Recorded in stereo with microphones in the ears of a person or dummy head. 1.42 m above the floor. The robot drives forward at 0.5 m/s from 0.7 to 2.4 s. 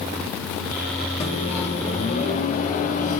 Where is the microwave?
35° left (ahead or behind), 2.5 m; by 3.2 s 45° left (ahead or behind), 1.8 m.